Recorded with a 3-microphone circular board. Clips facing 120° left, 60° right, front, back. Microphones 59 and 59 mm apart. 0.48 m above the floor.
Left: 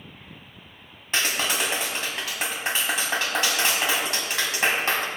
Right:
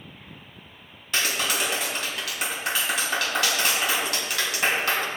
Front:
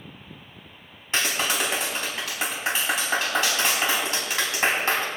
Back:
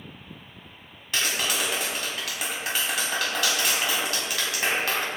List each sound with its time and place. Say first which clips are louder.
1.1 s a clap: left 1 dB, front 2 dB; 60° left, 3.5 m